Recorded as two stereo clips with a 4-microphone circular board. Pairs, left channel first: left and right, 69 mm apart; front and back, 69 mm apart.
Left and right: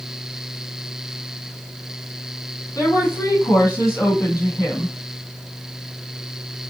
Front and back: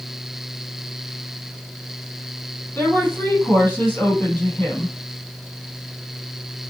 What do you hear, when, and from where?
2.8 s a woman speaking: 50° left, 3 m